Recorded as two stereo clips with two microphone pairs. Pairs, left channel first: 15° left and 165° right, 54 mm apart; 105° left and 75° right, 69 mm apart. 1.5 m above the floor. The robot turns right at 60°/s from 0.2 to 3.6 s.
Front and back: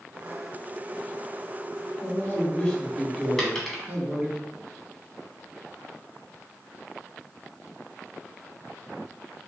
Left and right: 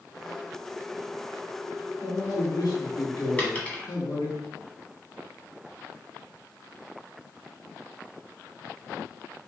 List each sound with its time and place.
2.0 s a man speaking: 45° left, 1.6 m; by 4.4 s 140° left, 1.6 m
3.4 s a dropped coin: 85° left, 1.4 m; by 3.9 s 95° left, 1.4 m